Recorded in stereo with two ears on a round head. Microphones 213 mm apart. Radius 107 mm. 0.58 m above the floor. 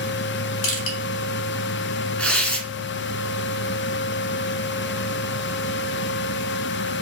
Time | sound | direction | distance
0.6 | crushing | 60° left (ahead or behind) | 1.2 m
2.2 | tearing paper | 5° left (ahead or behind) | 1.2 m